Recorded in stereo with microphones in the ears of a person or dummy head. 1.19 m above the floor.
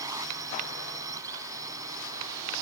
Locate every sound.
0.0 s a drone: 20° right (ahead or behind)